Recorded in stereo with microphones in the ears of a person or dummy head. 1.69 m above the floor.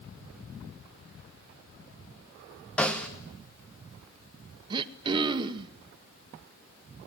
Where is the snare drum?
10° left (ahead or behind), 1.7 m.